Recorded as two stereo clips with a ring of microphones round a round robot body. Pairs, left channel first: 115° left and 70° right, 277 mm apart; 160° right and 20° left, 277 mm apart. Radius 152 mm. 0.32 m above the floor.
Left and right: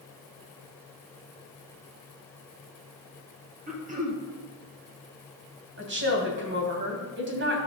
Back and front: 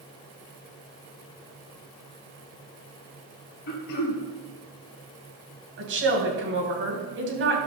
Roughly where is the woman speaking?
Ahead.